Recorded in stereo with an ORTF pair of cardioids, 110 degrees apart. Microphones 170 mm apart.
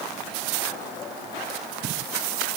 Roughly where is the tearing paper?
No tearing paper in this recording.